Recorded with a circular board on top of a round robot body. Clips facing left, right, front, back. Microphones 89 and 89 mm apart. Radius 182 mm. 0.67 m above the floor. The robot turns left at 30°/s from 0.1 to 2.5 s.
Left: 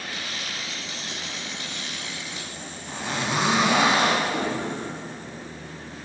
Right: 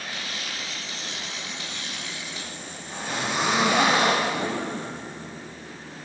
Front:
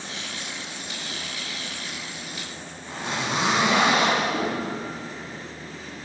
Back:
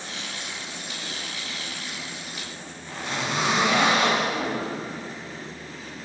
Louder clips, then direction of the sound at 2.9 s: Left 1 dB, front 1 dB; 70° left.